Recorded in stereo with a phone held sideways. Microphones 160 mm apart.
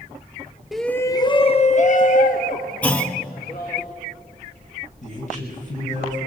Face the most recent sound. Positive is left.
turn(degrees=50)  # may be behind; listen again after turning